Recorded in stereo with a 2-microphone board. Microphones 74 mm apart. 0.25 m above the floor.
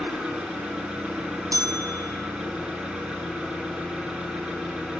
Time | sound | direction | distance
0.0 | an engine running | 10° right (ahead or behind) | 1.7 m
1.5 | a bell | 50° right (ahead or behind) | 2 m